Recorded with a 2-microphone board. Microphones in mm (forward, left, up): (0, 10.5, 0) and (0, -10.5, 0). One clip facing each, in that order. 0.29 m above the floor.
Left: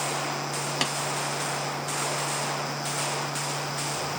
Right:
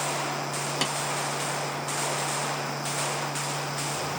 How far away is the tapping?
About 1.3 m.